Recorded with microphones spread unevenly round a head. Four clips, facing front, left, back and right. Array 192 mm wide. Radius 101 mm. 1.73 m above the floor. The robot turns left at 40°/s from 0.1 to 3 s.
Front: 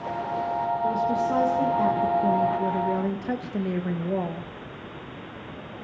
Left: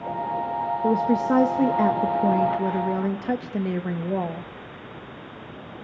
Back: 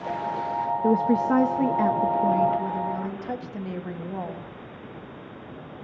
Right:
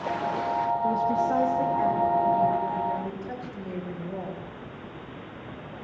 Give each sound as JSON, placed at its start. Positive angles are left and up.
{"t": 0.8, "sound": "a woman speaking", "azimuth_deg": 140, "distance_m": 1.6}